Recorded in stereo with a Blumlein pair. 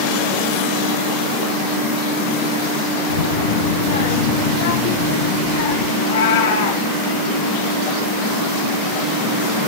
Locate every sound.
3.1 s a child speaking: 65° left, 1.0 m; by 5.9 s 50° left, 2.5 m
6.0 s a cat meowing: 60° left, 3.5 m